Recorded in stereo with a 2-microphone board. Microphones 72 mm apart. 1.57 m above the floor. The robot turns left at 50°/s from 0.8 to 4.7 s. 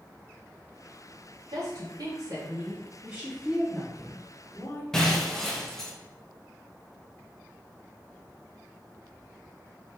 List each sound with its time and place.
1.5 s a woman speaking: 85° right, 1.6 m; by 2.8 s 150° right, 1.6 m
3.0 s a woman speaking: 150° right, 1.8 m; by 4.8 s 125° left, 1.8 m
4.9 s breaking glass: 5° left (ahead or behind), 0.9 m